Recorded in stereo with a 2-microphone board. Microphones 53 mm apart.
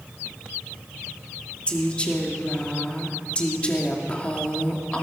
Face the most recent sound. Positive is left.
turn(degrees=20)  # may be behind; listen again after turning